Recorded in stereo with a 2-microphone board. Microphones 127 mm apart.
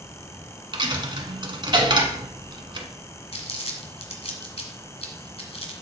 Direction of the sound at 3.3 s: 55° left (ahead or behind).